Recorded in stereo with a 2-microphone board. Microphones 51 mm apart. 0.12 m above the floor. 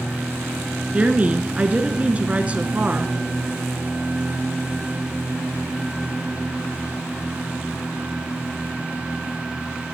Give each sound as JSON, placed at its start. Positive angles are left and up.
{"t": 0.9, "sound": "a woman speaking", "side_deg": -25, "distance_m": 1.1}